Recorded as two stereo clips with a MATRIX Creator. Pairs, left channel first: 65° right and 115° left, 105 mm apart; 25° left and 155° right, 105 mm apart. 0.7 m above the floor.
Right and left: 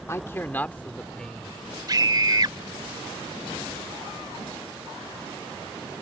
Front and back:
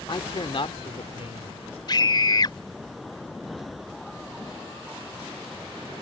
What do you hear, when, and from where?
0.1 s a man speaking: 10° right; by 1.8 s 25° left
1.9 s a scream: 65° left